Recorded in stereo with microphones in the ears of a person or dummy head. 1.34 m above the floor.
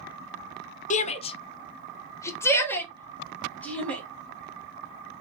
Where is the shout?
35° left (ahead or behind), 0.7 m; by 4.0 s centre (ahead or behind), 2.0 m.